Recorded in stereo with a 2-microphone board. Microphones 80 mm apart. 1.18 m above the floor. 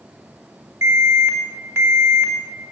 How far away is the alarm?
About 3.5 m.